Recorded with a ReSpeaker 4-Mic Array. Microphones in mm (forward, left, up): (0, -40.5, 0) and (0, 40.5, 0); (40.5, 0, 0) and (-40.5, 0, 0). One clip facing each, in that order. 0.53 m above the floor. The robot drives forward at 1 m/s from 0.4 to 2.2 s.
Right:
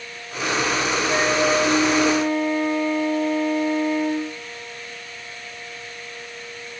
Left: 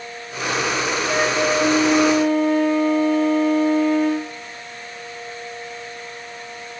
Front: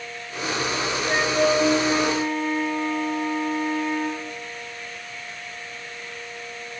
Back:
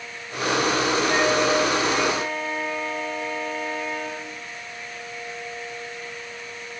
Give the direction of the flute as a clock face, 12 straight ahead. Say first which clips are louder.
Even, front 3 dB; 10 o'clock.